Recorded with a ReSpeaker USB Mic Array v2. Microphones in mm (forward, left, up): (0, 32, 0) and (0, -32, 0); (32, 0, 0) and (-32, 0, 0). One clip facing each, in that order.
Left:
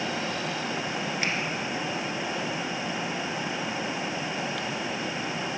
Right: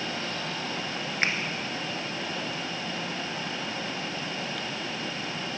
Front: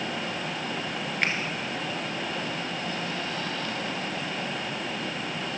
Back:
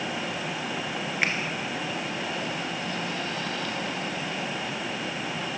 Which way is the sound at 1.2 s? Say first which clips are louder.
Right 4 dB, even; 100° right.